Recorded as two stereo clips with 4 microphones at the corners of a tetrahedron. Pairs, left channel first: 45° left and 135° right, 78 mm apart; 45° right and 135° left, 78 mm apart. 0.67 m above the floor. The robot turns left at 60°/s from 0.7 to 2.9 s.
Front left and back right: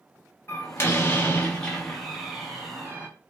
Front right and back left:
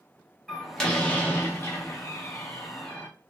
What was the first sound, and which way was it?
A door slam, 30° left.